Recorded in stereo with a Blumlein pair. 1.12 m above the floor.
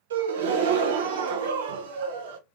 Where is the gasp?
60° right, 0.6 m.